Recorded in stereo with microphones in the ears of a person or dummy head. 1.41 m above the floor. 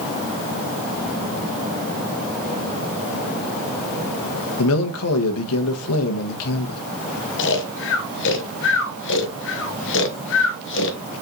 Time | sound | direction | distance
4.6 | a man speaking | 80° left | 1.4 m
7.4 | snoring | 60° left (ahead or behind) | 1.3 m